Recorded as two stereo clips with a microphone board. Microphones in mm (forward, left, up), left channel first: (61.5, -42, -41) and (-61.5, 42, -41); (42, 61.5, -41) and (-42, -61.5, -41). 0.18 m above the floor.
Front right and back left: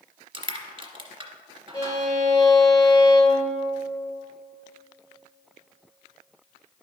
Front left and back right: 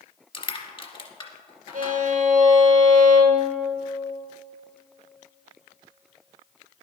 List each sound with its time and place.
0.3 s crushing: 100° left, 1.0 m
1.7 s a violin: 100° right, 1.2 m